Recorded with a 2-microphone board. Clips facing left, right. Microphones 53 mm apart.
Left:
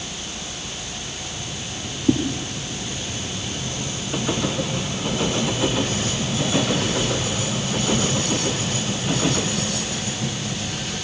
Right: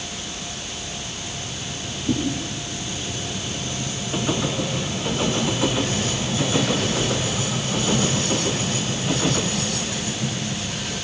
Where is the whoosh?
75° left (ahead or behind), 4 m.